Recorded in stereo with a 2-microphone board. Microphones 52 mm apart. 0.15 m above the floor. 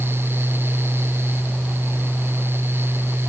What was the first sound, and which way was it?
Only background noise.